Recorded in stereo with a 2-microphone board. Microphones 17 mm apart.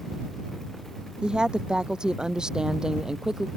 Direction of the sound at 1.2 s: 70° right (ahead or behind).